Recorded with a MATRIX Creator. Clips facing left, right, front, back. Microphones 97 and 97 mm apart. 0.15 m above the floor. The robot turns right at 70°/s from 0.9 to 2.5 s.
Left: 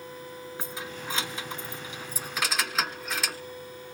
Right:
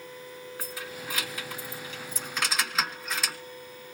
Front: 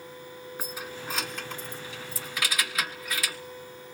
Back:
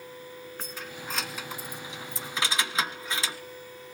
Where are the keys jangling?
65° left, 1.1 m; by 3.4 s straight behind, 1.1 m.